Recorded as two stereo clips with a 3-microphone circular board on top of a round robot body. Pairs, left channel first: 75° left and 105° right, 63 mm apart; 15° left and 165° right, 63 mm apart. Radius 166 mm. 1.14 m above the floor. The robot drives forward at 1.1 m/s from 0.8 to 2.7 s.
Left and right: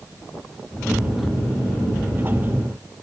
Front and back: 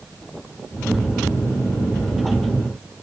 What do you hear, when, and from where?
Only background noise.